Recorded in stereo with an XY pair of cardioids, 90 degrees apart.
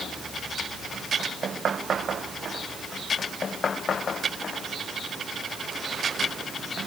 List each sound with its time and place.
Only background noise.